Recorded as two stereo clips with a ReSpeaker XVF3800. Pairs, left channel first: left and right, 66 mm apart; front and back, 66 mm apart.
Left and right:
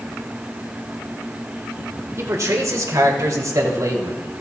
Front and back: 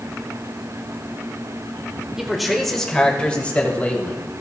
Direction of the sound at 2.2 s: 100° right.